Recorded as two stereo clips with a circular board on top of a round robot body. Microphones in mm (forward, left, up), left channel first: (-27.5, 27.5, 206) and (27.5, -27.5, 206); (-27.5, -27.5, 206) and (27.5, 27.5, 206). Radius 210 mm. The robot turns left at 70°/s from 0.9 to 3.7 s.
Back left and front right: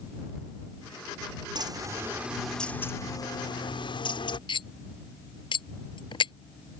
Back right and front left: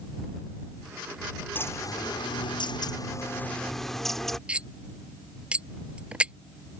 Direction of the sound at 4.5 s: 120° left.